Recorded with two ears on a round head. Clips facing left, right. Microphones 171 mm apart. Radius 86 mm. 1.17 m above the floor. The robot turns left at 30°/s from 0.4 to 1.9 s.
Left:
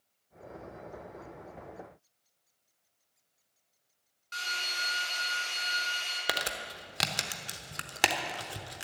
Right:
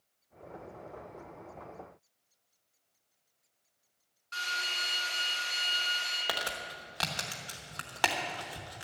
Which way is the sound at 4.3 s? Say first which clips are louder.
Even; 20° left (ahead or behind).